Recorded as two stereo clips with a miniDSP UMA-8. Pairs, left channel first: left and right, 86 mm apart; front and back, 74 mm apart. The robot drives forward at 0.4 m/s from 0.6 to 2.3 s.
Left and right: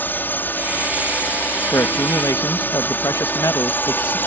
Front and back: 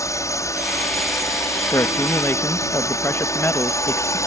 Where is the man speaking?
40° left; by 4.2 s 50° left.